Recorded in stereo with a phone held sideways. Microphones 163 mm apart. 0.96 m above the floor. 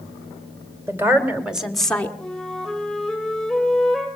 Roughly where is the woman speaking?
Centre.